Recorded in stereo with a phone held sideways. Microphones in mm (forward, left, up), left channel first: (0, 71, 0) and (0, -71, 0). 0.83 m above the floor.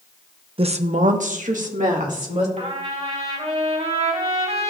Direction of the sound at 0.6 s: 40° right (ahead or behind).